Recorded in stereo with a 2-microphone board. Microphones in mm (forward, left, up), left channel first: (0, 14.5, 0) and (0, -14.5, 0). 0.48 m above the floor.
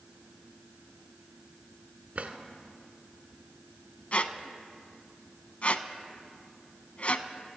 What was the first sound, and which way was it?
A drawer, 55° right (ahead or behind).